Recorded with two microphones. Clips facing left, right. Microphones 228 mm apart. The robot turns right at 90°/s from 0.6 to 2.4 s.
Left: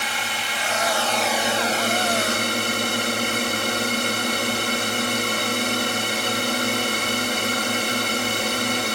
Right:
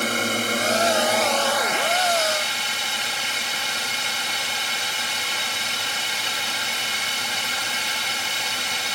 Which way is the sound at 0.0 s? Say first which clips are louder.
Right 8 dB; 55° right.